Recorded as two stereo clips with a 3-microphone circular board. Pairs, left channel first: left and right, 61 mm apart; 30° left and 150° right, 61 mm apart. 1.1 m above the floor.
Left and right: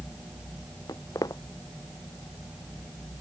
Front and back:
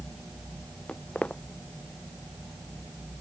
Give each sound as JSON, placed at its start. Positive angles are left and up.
{"t": 0.9, "sound": "footsteps", "azimuth_deg": 105}